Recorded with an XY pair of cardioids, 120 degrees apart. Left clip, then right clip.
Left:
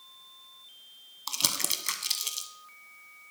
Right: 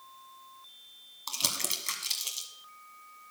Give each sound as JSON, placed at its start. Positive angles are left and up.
{"t": 1.3, "sound": "crumpling", "azimuth_deg": 20, "distance_m": 1.1}